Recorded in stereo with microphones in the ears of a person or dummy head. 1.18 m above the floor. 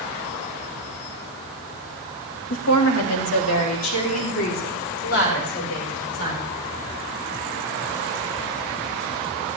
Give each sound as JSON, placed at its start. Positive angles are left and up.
{"t": 2.5, "sound": "a woman speaking", "side_deg": 75, "distance_m": 1.6}